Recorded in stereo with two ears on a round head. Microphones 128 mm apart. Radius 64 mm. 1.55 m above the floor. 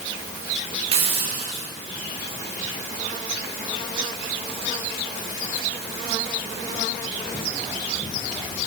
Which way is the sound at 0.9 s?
40° right (ahead or behind).